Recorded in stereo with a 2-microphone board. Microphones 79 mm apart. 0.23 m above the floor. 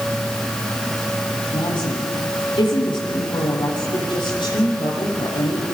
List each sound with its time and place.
1.5 s a woman speaking: 80° left, 9 m